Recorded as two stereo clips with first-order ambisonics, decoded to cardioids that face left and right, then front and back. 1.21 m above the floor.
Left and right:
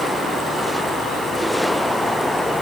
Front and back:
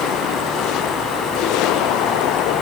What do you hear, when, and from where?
Only background noise.